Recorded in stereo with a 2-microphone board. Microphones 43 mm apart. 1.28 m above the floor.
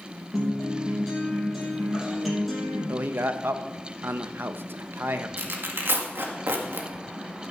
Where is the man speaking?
60° right (ahead or behind), 0.9 m.